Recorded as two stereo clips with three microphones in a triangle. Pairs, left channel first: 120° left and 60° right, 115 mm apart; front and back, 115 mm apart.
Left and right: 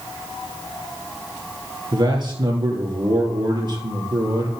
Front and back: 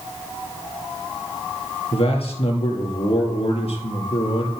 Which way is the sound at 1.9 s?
15° right.